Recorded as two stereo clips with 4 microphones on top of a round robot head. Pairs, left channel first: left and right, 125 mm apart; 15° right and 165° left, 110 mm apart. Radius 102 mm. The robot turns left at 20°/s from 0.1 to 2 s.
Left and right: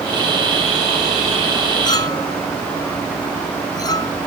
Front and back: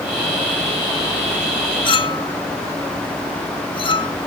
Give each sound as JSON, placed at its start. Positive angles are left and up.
{"t": 1.9, "sound": "a clink", "azimuth_deg": 30}